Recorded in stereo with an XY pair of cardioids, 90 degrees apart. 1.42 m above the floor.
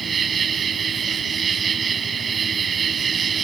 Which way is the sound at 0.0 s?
50° right.